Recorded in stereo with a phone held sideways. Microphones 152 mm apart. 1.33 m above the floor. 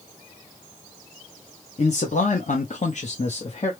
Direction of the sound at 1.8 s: 50° left (ahead or behind).